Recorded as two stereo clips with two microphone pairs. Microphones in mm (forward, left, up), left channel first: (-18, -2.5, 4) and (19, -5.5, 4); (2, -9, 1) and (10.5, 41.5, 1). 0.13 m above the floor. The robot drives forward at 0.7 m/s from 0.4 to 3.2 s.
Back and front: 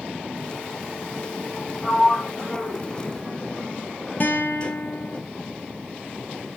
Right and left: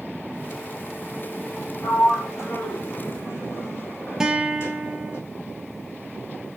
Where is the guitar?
160° left, 1.2 m.